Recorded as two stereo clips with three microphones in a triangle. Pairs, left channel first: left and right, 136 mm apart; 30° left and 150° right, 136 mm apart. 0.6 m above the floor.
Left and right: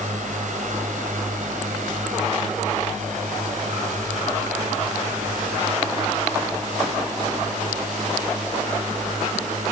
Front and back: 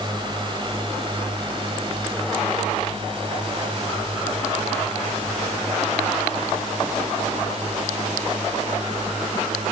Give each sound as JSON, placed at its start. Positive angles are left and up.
{"t": 0.0, "sound": "a drone", "azimuth_deg": -95}